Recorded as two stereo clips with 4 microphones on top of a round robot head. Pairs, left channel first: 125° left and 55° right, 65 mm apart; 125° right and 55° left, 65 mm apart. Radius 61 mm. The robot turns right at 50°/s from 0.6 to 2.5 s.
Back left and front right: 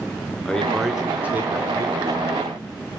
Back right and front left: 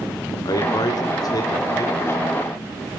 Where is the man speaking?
155° right, 1.6 m; by 2.5 s 60° right, 1.6 m.